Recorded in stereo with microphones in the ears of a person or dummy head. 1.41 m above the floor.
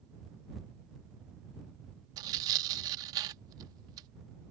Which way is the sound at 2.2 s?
30° right (ahead or behind).